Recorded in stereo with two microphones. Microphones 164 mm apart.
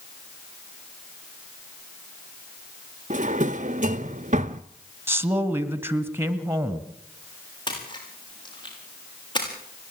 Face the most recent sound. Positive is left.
turn(degrees=30)  # may be behind; listen again after turning